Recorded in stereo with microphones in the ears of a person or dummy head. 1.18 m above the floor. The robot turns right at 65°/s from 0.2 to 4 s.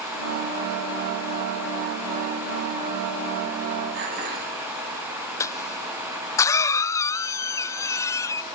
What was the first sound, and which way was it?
Dishes clattering, 50° right (ahead or behind).